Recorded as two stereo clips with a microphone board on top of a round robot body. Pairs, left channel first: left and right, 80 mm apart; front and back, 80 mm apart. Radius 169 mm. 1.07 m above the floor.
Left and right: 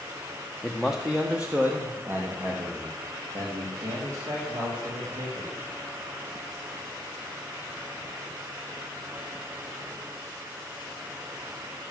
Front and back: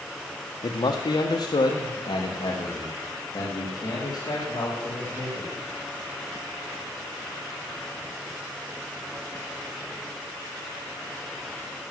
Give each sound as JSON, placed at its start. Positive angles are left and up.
{"t": 0.6, "sound": "a man speaking", "azimuth_deg": 5, "distance_m": 1.1}